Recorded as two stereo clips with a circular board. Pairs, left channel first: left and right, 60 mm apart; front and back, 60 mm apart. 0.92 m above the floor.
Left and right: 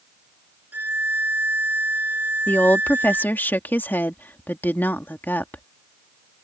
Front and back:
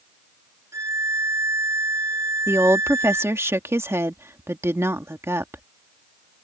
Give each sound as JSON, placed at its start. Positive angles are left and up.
{"t": 0.7, "sound": "a violin", "azimuth_deg": -150}
{"t": 2.5, "sound": "a woman speaking", "azimuth_deg": 145}